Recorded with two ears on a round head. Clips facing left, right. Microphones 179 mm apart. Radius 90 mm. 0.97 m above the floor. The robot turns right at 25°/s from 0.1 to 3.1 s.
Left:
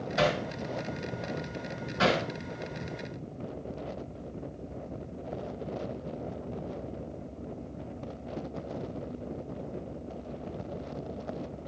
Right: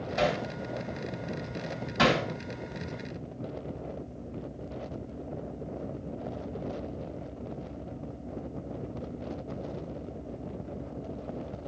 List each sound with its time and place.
0.2 s hammering: 5° left (ahead or behind), 2.5 m; by 0.4 s 10° left (ahead or behind), 2.5 m
2.0 s hammering: 80° right, 3 m